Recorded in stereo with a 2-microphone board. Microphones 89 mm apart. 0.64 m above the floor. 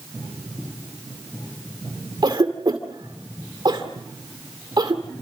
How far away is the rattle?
No rattle in this recording.